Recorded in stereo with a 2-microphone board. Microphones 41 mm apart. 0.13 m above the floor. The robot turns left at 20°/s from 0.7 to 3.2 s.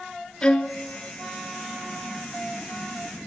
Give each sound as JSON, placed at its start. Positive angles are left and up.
{"t": 0.4, "sound": "a violin", "side_deg": 25, "distance_m": 0.7}